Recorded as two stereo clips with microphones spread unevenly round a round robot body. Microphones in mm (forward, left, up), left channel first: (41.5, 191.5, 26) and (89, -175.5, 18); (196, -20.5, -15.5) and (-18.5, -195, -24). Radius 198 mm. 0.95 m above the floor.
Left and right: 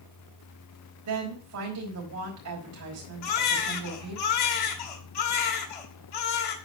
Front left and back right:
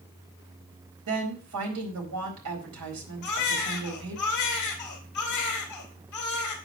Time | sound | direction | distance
1.1 | a woman speaking | 135° right | 4.5 m
3.2 | a baby crying | 80° left | 2.5 m